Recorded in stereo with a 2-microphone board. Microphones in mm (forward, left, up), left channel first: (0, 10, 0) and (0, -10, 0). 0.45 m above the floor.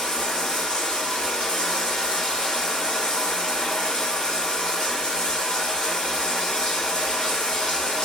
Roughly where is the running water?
Left.